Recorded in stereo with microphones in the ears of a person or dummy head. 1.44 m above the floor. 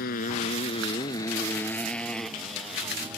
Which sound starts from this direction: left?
A motorcycle, at 0.0 s.